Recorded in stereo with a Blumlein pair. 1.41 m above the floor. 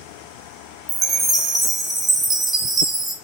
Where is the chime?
10° right, 0.8 m.